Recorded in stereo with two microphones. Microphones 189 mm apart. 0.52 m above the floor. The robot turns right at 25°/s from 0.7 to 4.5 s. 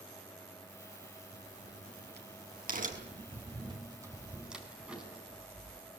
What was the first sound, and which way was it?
A crack, 75° right (ahead or behind).